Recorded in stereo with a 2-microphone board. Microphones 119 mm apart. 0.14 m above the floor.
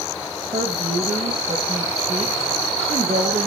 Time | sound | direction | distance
0.5 | a woman speaking | 80° right | 5.5 m